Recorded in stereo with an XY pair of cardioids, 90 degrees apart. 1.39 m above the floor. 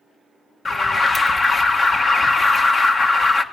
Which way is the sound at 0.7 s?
35° left.